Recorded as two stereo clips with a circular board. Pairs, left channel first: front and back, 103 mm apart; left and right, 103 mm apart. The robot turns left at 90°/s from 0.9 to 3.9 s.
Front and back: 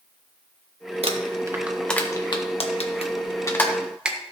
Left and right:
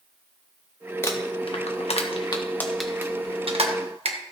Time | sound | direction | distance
1.0 | crumpling | 160° left | 1.3 m